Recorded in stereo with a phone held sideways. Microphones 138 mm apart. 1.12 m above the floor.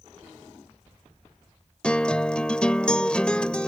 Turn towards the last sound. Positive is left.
turn(degrees=5)  # may be behind; listen again after turning